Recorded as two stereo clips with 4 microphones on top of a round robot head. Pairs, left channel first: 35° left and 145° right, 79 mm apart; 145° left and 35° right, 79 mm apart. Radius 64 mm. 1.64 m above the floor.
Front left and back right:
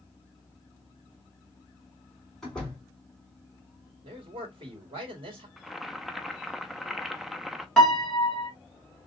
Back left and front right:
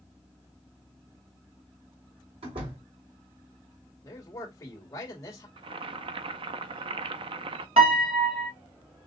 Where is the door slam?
45° right, 3.5 m.